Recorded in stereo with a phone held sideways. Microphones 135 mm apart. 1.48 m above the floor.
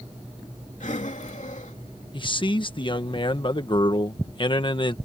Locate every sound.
0.8 s breathing: 75° left (ahead or behind)
2.1 s a man speaking: 40° left (ahead or behind)